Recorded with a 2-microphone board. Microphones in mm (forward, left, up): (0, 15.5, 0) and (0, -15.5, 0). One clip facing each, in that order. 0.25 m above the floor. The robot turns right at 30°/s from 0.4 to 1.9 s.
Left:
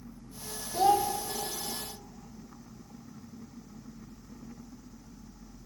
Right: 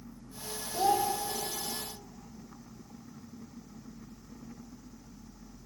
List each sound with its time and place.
0.7 s a child speaking: 25° left (ahead or behind), 0.7 m; by 1.1 s 30° left (ahead or behind), 0.7 m